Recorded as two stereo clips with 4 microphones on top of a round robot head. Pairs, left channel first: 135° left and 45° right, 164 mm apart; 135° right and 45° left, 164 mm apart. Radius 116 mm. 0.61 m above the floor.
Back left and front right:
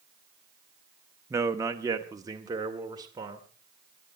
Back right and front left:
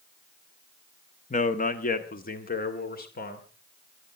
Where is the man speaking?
115° right, 1.3 m; by 3.5 s 110° right, 2.5 m.